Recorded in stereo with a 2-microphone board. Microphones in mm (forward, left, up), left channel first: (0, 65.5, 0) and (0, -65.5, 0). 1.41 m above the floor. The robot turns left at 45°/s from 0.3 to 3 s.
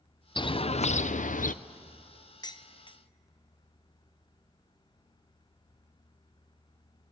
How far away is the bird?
About 0.5 m.